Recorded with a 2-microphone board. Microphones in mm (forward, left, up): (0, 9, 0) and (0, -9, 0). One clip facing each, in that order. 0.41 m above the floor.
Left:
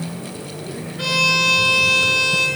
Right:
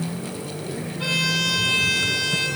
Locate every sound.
1.0 s a violin: 60° left (ahead or behind), 5 m